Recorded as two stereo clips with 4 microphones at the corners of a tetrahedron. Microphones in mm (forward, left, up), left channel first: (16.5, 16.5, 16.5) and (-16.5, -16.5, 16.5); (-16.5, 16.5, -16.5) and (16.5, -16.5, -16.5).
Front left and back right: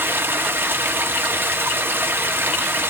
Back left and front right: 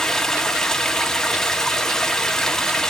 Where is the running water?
150° right, 1.5 m.